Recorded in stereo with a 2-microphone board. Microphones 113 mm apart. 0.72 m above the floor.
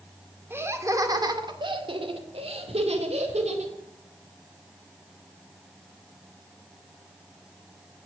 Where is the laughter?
20° right (ahead or behind), 1.9 m; by 3.8 s 75° right (ahead or behind), 3 m.